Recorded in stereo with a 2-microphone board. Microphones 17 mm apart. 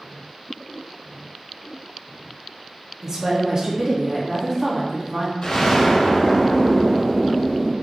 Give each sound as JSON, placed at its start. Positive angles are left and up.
{"t": 3.0, "sound": "a woman speaking", "side_deg": -30, "distance_m": 0.6}
{"t": 5.4, "sound": "an explosion", "side_deg": 50, "distance_m": 1.5}